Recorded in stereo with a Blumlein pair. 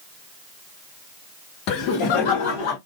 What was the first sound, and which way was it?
Laughter, 40° left.